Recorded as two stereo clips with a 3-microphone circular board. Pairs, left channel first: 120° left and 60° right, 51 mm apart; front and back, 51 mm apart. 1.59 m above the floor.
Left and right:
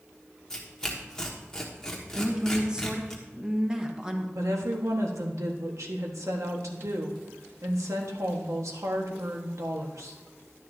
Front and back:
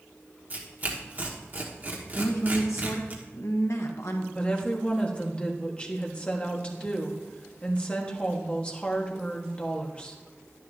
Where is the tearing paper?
170° right, 1.3 m.